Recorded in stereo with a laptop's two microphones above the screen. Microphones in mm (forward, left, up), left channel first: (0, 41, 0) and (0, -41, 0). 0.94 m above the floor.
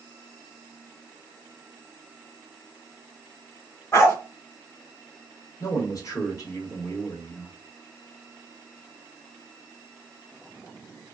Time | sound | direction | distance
3.9 | a dog barking | 35° left (ahead or behind) | 0.9 m
5.6 | a man speaking | 40° left (ahead or behind) | 1.0 m